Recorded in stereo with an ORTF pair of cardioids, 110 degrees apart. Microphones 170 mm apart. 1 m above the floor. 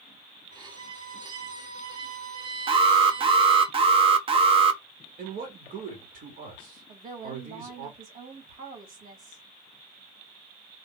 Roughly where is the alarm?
Ahead right.